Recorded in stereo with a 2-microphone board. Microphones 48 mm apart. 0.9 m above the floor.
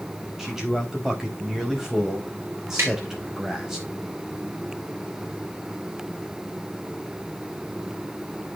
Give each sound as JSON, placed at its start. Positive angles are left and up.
{"t": 0.4, "sound": "a man speaking", "side_deg": -5, "distance_m": 4.5}
{"t": 2.8, "sound": "tapping", "side_deg": -50, "distance_m": 4.5}